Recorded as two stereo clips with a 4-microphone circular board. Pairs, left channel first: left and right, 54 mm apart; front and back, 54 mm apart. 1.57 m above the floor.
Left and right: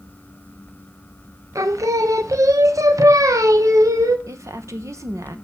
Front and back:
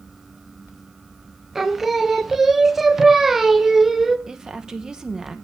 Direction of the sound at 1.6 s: 95° right.